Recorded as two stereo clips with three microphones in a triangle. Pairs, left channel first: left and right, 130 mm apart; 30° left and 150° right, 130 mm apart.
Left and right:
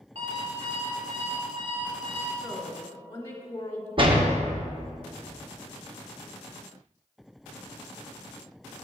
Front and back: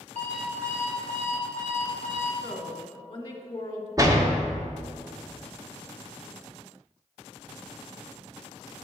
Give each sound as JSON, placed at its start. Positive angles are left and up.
{"t": 0.1, "sound": "an alarm clock", "azimuth_deg": -125, "distance_m": 1.6}
{"t": 2.4, "sound": "a woman speaking", "azimuth_deg": 50, "distance_m": 1.1}
{"t": 4.0, "sound": "a door slam", "azimuth_deg": -100, "distance_m": 0.7}